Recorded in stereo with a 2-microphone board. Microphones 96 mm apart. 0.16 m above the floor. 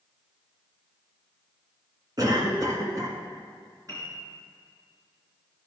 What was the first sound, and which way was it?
A cough, 45° right (ahead or behind).